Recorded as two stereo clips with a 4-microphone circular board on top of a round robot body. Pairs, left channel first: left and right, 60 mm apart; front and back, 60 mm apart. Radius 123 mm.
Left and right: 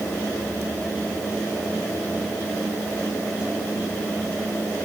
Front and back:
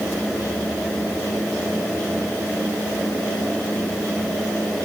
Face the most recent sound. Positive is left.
No sound to turn to.